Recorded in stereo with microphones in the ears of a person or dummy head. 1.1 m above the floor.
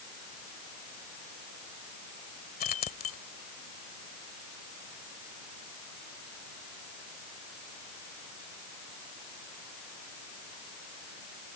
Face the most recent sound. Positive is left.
turn(degrees=40)  # may be behind; listen again after turning